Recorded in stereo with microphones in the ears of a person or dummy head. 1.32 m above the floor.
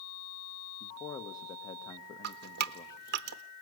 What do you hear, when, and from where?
0.8 s a man speaking: 20° left (ahead or behind), 1.5 m
2.2 s dripping: 60° right (ahead or behind), 0.6 m